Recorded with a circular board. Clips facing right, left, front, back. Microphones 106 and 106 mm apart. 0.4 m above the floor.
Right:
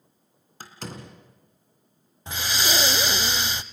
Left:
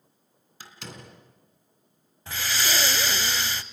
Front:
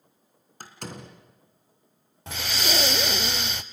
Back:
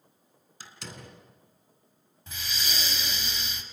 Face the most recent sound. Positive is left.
turn(degrees=-20)